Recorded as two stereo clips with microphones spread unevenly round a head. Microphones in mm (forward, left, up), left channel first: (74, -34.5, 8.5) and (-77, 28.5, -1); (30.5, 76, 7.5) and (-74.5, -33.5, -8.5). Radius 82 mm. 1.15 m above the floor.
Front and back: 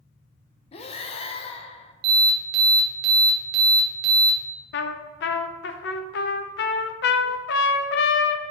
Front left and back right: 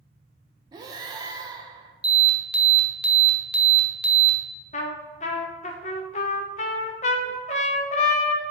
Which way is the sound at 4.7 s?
5° right.